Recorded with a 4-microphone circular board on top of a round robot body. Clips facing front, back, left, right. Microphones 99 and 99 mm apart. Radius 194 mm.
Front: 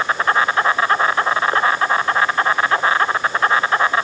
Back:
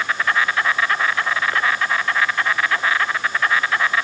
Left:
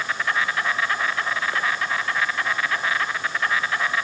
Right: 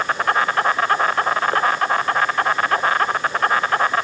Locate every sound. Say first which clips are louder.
0.0 s an insect: front 4 dB, right 6 dB; 55° right, 1.1 m